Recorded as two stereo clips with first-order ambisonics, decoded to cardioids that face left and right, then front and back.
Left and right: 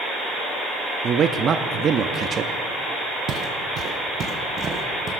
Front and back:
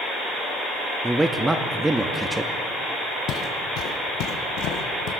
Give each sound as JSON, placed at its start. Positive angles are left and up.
{"t": 1.0, "sound": "a man speaking", "azimuth_deg": -105, "distance_m": 0.6}
{"t": 3.3, "sound": "footsteps", "azimuth_deg": -40, "distance_m": 1.5}